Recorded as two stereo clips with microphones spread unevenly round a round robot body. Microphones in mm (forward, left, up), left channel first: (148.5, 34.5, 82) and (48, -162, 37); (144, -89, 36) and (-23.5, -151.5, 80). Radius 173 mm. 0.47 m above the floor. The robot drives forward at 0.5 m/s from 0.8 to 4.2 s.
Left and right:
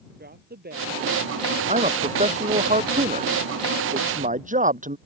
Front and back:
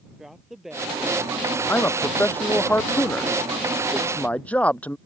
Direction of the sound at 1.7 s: 60° right.